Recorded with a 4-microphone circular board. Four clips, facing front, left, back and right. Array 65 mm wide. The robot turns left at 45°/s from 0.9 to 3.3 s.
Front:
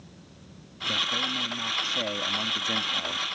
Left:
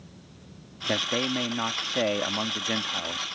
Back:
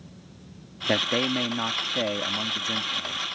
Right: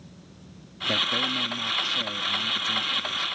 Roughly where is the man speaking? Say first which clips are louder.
Right 1 dB, back 4 dB; behind.